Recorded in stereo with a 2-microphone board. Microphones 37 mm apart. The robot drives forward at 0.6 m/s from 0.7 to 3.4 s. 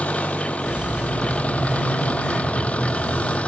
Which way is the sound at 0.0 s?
40° left (ahead or behind).